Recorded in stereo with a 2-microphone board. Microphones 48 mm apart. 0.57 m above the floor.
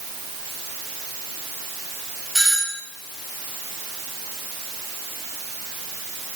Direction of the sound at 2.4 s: 5° right (ahead or behind).